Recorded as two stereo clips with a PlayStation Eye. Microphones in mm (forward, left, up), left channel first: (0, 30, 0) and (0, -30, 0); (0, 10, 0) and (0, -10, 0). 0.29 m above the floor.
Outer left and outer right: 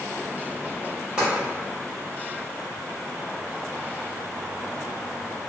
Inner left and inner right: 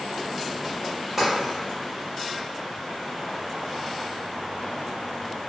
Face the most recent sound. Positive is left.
turn(degrees=-20)  # may be behind; listen again after turning